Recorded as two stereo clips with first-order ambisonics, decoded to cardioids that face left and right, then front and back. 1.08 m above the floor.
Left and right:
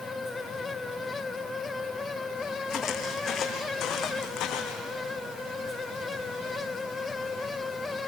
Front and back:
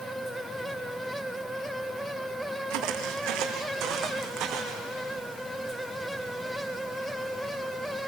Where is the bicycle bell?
I don't hear a bicycle bell.